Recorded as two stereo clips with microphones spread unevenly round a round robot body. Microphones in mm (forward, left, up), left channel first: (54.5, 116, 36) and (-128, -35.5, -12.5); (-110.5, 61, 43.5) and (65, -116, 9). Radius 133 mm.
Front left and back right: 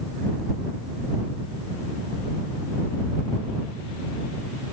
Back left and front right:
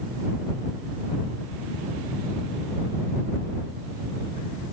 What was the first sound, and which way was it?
Only background noise.